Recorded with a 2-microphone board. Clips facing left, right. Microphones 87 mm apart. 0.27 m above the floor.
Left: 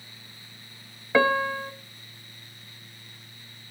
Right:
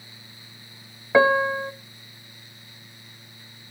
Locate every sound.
1.1 s a piano: 15° right (ahead or behind), 0.7 m